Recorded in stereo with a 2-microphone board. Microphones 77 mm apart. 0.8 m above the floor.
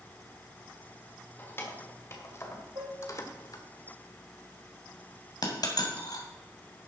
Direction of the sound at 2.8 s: 90° right.